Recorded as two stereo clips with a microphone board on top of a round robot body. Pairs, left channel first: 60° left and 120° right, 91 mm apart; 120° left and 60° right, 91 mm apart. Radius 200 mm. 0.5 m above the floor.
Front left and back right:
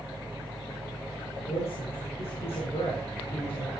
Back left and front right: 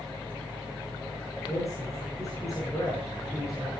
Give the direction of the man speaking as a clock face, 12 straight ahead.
10 o'clock.